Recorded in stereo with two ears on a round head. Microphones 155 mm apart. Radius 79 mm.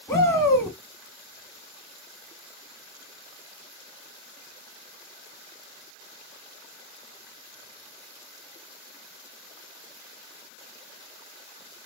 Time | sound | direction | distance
0.1 | a shout | 15° left (ahead or behind) | 1.7 m